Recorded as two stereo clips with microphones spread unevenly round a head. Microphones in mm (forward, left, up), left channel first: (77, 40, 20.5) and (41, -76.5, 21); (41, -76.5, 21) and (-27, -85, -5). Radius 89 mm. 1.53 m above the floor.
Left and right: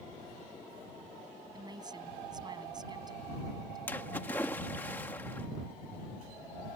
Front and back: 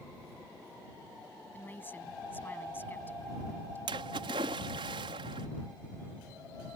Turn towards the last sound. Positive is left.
turn(degrees=150)